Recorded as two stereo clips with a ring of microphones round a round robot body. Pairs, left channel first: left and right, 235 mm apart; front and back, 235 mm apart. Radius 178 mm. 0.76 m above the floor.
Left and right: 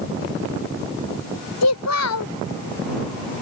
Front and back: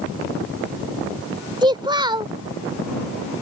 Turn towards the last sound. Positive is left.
turn(degrees=110)